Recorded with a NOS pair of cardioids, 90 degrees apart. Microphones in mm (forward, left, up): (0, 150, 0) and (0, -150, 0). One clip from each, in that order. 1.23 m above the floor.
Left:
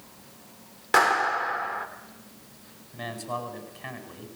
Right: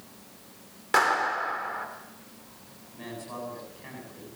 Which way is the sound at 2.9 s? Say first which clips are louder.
Left 6 dB; 60° left.